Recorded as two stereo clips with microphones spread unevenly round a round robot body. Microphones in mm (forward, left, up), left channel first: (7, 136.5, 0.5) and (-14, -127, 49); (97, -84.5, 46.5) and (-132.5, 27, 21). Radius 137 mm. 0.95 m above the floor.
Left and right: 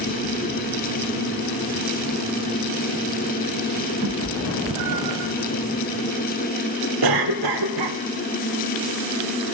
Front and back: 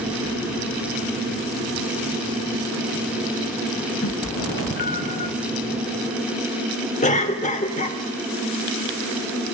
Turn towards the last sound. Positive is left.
turn(degrees=-90)